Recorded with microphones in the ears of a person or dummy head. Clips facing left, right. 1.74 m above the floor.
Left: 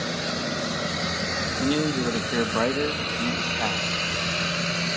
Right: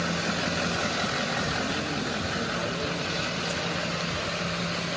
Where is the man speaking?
60° left (ahead or behind), 1.9 m; by 4.9 s 70° left (ahead or behind), 3 m.